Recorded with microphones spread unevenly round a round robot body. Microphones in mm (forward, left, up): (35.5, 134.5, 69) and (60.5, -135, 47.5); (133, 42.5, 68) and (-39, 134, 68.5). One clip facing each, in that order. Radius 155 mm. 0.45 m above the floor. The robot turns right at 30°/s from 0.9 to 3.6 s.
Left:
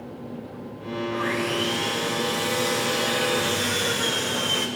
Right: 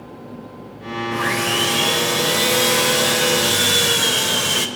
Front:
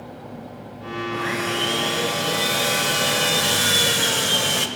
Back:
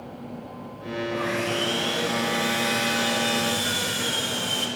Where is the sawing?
125° right, 0.9 m; by 4.7 s 50° right, 0.9 m.